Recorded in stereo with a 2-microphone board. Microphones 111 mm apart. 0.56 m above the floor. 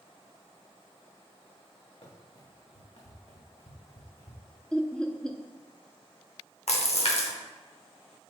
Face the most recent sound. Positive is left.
turn(degrees=70)  # may be behind; listen again after turning